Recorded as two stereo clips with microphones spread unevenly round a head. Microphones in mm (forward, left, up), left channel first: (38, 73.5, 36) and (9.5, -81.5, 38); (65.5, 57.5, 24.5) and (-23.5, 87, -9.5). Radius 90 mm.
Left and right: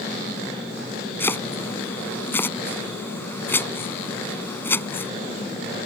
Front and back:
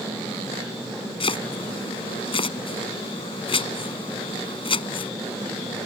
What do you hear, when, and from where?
1.2 s chopping: straight ahead